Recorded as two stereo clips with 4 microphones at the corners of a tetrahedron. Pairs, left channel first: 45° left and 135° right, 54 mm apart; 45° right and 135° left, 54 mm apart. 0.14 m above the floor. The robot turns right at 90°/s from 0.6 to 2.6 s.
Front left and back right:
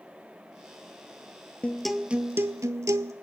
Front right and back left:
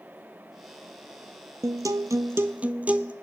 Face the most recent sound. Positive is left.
turn(degrees=-160)